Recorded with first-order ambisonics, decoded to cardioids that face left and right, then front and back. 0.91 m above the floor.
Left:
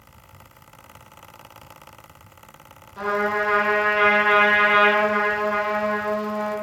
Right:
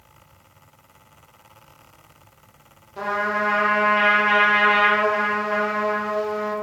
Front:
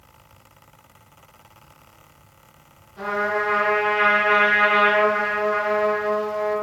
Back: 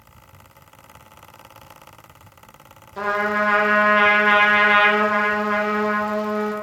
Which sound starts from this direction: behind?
A trumpet, at 3.0 s.